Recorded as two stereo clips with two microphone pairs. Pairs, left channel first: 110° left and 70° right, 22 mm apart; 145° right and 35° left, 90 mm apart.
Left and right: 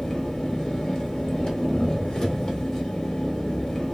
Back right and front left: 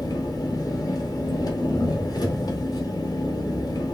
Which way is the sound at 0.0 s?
175° left.